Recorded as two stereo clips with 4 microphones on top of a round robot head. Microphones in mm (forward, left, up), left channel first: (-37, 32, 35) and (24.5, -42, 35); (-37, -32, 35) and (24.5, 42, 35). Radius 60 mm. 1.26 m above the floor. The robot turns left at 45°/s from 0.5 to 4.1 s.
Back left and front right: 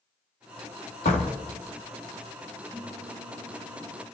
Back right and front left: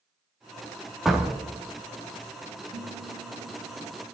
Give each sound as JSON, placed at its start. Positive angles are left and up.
{"t": 1.1, "sound": "a door slam", "azimuth_deg": 140, "distance_m": 2.0}
{"t": 2.7, "sound": "a guitar", "azimuth_deg": 45, "distance_m": 9.5}